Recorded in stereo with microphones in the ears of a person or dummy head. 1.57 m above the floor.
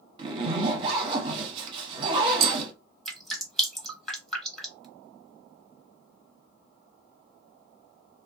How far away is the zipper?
About 0.7 m.